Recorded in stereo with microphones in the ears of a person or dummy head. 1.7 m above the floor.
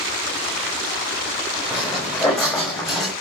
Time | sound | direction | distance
1.7 | footsteps | 5° right (ahead or behind) | 6 m